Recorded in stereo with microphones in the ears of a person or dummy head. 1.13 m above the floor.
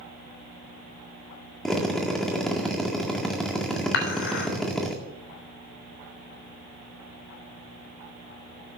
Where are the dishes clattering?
60° left (ahead or behind), 3.5 m.